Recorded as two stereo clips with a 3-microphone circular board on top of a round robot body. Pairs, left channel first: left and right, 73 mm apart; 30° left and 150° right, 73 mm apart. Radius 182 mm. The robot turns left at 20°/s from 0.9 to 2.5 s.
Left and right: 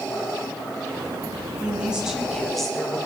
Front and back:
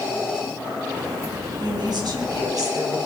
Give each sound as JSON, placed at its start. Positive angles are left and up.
{"t": 1.6, "sound": "a woman speaking", "azimuth_deg": -165, "distance_m": 4.5}